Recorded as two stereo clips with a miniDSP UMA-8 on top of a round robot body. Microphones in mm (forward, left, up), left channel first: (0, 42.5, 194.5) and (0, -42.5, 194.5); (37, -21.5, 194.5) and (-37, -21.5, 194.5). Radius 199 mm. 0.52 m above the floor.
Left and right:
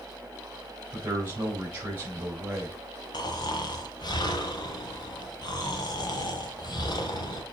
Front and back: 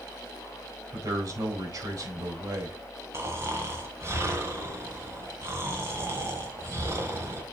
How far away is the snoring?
About 1.1 m.